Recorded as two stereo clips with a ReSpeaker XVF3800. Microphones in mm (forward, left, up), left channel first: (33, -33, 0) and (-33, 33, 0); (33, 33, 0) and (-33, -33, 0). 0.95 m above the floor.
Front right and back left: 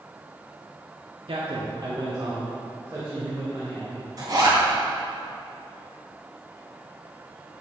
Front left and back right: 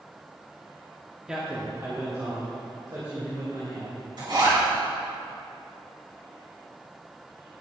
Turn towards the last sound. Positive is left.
turn(degrees=-175)